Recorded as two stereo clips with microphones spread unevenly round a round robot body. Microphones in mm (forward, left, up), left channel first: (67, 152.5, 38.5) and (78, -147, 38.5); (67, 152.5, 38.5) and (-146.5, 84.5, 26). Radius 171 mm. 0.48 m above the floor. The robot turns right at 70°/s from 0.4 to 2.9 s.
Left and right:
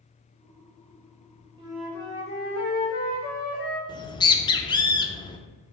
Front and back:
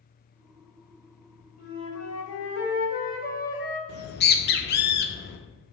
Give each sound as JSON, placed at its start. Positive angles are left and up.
{"t": 1.6, "sound": "a flute", "azimuth_deg": -15, "distance_m": 1.2}
{"t": 3.9, "sound": "a bird", "azimuth_deg": 20, "distance_m": 0.5}